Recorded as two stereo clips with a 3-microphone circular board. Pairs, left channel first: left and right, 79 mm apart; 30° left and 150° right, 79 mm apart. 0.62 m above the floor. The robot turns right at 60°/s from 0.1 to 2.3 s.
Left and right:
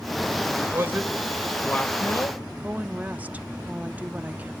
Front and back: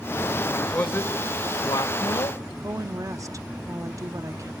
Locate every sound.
0.7 s a man speaking: 40° right, 1.9 m; by 2.4 s 55° left, 1.9 m
2.6 s a woman speaking: 150° right, 0.7 m